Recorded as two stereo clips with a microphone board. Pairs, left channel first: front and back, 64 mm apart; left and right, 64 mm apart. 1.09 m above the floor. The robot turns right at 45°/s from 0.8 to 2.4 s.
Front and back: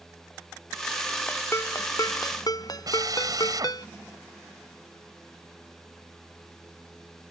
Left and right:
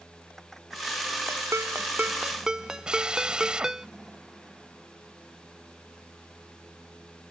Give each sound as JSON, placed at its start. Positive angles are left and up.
{"t": 1.3, "sound": "a ringtone", "azimuth_deg": -60}
{"t": 2.9, "sound": "a drill", "azimuth_deg": -165}